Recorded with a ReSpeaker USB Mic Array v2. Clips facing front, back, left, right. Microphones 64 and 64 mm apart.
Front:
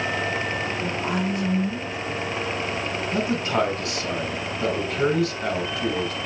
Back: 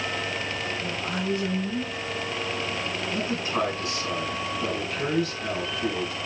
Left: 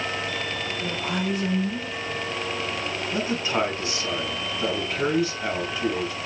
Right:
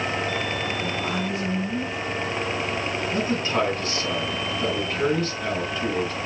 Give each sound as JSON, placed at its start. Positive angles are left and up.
{"t": 0.8, "sound": "a woman speaking", "azimuth_deg": 20, "distance_m": 4.0}
{"t": 3.1, "sound": "a man speaking", "azimuth_deg": 20, "distance_m": 4.5}